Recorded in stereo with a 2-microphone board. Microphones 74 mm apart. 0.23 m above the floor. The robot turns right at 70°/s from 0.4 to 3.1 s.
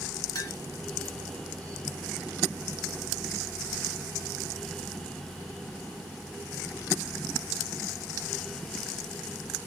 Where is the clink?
55° left (ahead or behind), 1.9 m; by 0.6 s 65° left (ahead or behind), 1.9 m.